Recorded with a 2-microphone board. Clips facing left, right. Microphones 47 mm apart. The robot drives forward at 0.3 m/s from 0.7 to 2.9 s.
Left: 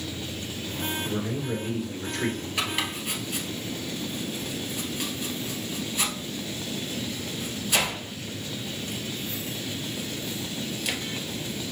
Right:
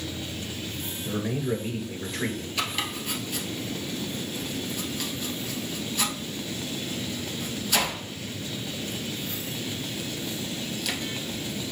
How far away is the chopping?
About 1.3 m.